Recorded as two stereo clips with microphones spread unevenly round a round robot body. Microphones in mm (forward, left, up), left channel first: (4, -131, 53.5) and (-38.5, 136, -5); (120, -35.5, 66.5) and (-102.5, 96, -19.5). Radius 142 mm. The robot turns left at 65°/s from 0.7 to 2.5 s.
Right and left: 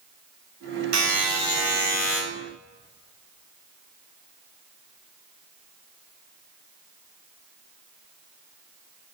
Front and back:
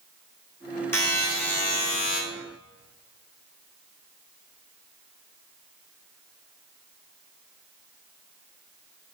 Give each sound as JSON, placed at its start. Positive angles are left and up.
{"t": 0.9, "sound": "a buzzer", "azimuth_deg": 55, "distance_m": 4.5}